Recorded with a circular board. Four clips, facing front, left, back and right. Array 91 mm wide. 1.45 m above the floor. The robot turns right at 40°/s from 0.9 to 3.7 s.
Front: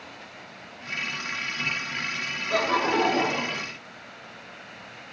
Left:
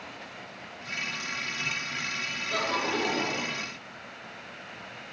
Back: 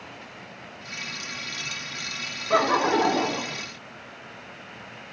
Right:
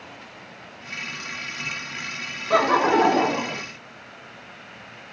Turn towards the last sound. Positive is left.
turn(degrees=-70)